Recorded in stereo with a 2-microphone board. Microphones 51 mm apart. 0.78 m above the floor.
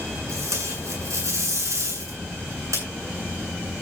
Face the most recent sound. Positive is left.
turn(degrees=-85)